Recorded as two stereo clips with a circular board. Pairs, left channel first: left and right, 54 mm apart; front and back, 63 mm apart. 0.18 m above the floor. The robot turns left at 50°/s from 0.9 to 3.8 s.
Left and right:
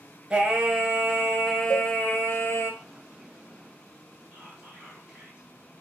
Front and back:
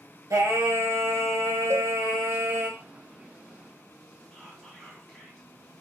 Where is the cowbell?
140° left, 2.5 m; by 1.9 s 130° left, 2.5 m.